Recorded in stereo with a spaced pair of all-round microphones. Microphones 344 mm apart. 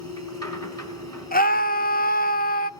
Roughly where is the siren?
No siren in this recording.